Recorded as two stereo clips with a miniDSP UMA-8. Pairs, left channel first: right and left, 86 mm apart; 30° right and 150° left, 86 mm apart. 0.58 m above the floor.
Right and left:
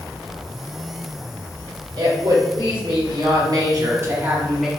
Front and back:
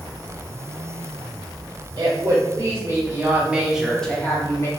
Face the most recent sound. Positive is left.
turn(degrees=5)